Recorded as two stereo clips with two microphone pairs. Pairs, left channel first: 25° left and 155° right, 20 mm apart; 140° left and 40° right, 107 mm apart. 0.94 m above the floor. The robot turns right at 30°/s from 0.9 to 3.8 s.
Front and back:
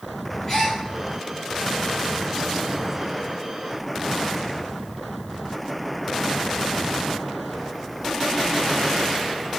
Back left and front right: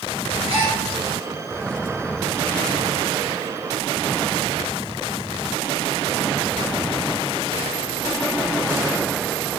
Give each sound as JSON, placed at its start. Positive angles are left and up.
{"t": 0.5, "sound": "a gasp", "azimuth_deg": -45, "distance_m": 1.8}